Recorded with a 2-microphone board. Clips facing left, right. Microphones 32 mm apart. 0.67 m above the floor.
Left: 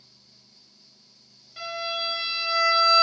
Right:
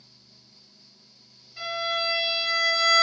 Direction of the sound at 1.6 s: 40° left (ahead or behind).